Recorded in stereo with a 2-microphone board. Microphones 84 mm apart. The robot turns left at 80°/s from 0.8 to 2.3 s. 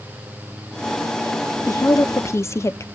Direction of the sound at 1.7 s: 110° left.